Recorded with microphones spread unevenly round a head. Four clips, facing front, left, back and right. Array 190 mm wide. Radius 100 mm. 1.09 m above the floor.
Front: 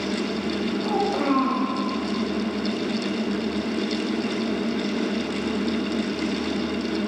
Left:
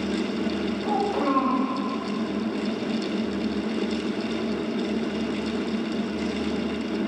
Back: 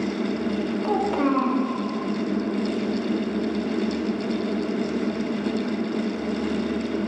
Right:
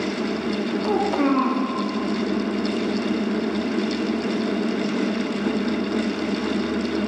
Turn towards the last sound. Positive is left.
turn(degrees=-110)